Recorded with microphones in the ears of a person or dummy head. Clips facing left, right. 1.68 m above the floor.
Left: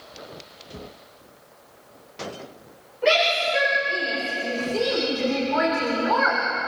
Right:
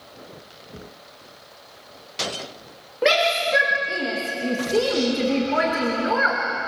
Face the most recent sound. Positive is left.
turn(degrees=-25)  # may be behind; listen again after turning